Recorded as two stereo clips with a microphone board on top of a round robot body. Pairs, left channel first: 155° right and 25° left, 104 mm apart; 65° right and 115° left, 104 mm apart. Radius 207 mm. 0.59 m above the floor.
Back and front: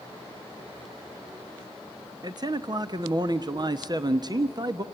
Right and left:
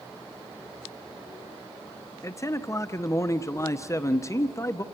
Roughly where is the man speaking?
Ahead.